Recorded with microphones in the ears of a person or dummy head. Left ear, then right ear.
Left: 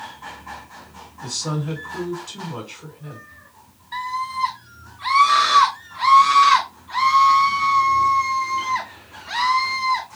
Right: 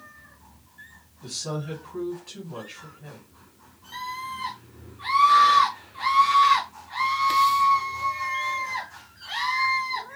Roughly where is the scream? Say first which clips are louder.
Left 7 dB; centre.